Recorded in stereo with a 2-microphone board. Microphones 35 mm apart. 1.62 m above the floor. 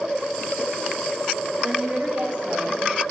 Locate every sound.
1.6 s a woman speaking: 45° right (ahead or behind), 3 m; by 3.0 s 35° right (ahead or behind), 2 m